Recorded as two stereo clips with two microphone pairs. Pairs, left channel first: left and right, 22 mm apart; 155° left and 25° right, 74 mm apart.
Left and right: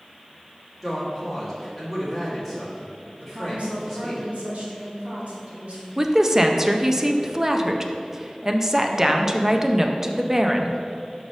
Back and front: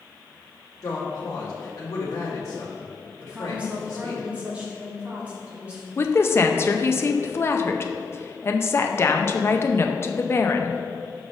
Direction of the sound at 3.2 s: 95° right.